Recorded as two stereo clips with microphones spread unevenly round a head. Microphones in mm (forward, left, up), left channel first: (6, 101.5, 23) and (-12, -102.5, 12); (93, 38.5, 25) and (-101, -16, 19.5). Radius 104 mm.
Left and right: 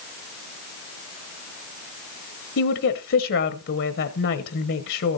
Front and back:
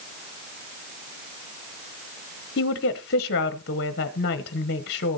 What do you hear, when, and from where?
2.6 s a woman speaking: 55° left, 1.1 m